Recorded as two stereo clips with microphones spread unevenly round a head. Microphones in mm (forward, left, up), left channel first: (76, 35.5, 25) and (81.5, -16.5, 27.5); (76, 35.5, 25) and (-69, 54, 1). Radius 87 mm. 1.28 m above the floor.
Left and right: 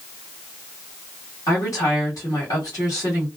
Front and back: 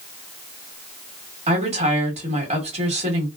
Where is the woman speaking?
130° left, 1.6 m.